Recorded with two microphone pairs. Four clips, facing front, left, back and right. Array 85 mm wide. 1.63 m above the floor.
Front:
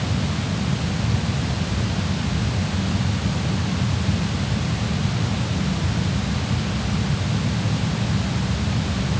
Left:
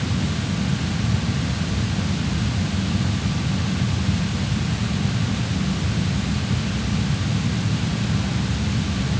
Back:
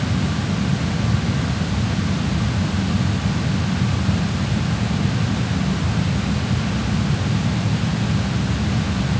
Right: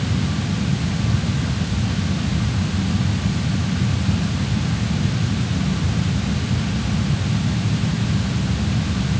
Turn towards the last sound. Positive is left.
No sound to turn to.